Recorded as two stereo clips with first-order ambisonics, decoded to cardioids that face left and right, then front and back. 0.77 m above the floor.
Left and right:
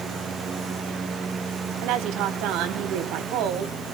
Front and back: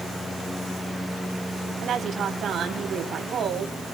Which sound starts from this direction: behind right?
A woman speaking, at 1.8 s.